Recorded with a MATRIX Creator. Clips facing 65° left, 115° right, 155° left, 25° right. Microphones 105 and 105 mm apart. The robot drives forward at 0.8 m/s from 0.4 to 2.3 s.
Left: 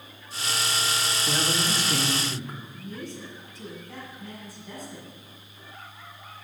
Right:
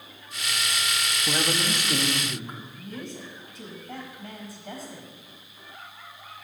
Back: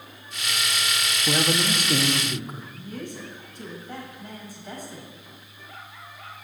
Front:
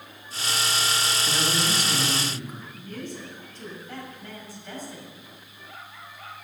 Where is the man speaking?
Straight behind, 1.1 m.